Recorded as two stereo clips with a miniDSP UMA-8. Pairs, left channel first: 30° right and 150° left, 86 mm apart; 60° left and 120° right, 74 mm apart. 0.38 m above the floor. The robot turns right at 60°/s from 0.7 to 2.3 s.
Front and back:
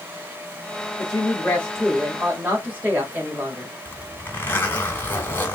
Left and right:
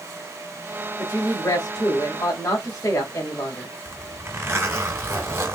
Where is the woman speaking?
5° left, 1.9 m; by 3.7 s 85° left, 1.9 m.